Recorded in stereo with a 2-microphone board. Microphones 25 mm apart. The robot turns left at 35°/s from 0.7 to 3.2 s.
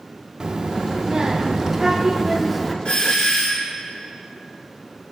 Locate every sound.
0.4 s a child speaking: 25° right (ahead or behind), 0.6 m; by 2.8 s 5° right (ahead or behind), 0.6 m
2.9 s a doorbell: 45° left (ahead or behind), 1.5 m; by 3.7 s 40° left (ahead or behind), 1.5 m